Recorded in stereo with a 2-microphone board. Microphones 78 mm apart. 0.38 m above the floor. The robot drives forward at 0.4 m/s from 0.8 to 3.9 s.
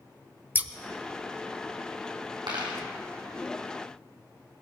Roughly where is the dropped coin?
Right.